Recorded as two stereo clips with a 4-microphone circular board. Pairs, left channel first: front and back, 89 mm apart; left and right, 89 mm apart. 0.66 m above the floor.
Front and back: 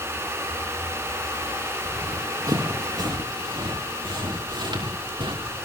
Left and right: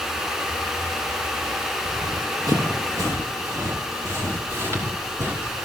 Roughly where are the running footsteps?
Behind right.